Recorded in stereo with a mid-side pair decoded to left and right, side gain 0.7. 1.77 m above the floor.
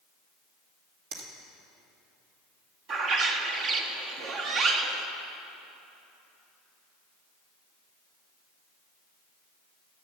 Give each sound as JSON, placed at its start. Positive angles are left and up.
{"t": 1.1, "sound": "a finger snap", "azimuth_deg": -60, "distance_m": 2.5}
{"t": 2.9, "sound": "a bird", "azimuth_deg": -50, "distance_m": 1.5}